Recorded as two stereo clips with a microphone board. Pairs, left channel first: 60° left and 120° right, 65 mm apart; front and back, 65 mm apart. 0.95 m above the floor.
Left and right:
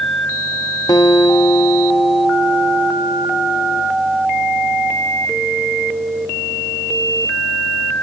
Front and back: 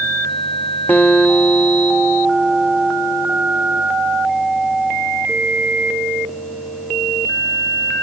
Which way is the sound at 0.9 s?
60° left.